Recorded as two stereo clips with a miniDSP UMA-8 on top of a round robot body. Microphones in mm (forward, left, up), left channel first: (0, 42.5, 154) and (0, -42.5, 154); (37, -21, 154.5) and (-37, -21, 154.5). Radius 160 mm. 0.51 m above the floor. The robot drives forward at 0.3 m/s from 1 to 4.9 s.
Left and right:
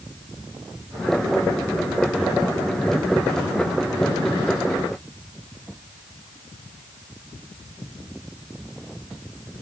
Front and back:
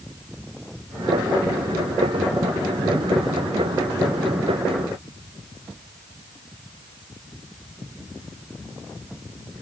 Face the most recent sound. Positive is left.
No sound to turn to.